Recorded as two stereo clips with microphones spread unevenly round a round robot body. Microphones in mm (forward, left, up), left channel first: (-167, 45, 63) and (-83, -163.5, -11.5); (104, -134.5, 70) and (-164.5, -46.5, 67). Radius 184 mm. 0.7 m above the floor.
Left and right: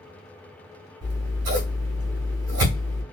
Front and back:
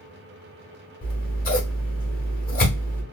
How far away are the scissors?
About 1.5 m.